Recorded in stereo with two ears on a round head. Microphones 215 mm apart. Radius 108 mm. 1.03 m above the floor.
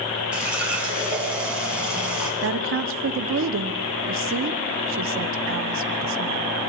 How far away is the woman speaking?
About 1.5 m.